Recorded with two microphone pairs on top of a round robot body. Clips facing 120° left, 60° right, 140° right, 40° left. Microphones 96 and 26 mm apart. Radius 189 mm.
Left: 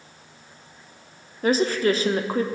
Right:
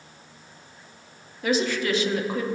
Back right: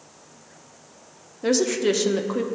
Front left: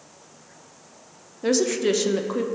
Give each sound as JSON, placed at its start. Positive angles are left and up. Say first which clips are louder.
{"t": 1.4, "sound": "a woman speaking", "louder": "left 4 dB, even", "azimuth_deg": 140, "distance_m": 1.0}